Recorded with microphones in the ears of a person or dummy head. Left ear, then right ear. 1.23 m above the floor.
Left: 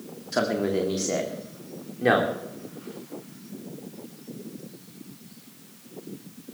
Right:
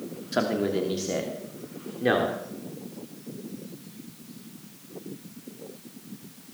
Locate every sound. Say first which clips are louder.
0.3 s a man speaking: left 1 dB; 5° left (ahead or behind), 2 m; by 2.3 s 25° left (ahead or behind), 3 m